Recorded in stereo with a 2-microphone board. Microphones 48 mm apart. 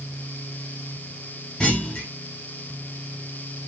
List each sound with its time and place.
1.6 s a clunk: 20° left (ahead or behind), 1.4 m